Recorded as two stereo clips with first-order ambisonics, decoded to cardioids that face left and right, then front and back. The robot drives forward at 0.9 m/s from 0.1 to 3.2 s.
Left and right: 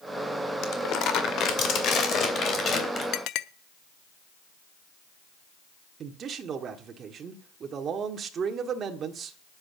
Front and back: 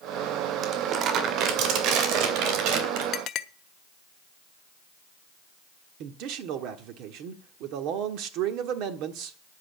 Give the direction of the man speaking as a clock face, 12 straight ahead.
5 o'clock.